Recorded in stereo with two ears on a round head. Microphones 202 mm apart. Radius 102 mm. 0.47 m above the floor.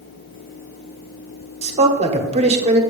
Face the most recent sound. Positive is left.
turn(degrees=-30)  # may be behind; listen again after turning